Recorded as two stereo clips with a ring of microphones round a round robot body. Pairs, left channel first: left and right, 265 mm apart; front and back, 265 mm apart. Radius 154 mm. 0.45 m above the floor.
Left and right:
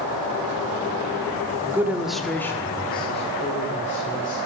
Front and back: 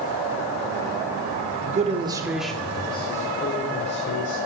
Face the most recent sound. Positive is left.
turn(degrees=35)